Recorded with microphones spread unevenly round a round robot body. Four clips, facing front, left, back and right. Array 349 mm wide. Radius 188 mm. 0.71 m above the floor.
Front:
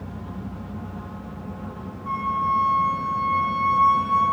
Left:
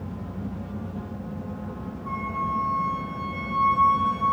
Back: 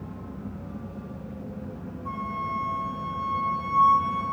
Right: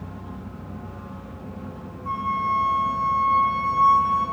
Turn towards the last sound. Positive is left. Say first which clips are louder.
# right 5 dB, front 8 dB
turn(degrees=-100)